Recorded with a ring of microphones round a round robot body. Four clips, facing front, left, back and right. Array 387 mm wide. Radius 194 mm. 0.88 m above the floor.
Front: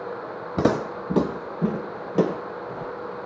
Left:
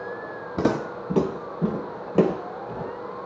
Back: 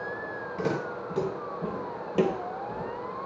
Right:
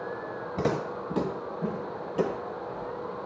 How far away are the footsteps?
About 2.5 m.